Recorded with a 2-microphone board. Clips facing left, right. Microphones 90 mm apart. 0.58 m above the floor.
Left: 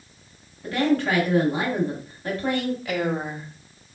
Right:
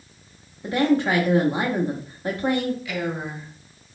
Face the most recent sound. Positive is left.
turn(degrees=45)  # may be behind; listen again after turning